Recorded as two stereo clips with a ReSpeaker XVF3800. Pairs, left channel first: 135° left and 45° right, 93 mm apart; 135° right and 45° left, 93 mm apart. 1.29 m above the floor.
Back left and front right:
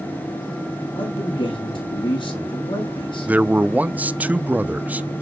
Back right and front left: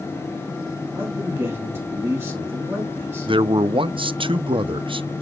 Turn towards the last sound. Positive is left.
turn(degrees=30)